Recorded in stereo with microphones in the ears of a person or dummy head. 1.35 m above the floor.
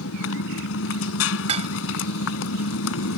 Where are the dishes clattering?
30° right (ahead or behind).